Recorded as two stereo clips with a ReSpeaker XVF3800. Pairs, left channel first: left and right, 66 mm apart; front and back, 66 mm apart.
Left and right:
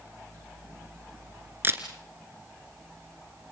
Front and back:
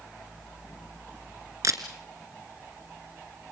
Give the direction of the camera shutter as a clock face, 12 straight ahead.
5 o'clock.